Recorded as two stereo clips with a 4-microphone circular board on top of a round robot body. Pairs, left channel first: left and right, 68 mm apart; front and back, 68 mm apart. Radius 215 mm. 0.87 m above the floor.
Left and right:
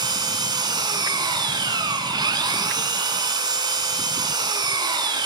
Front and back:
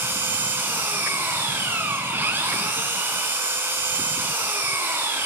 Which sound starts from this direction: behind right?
An engine running, at 0.0 s.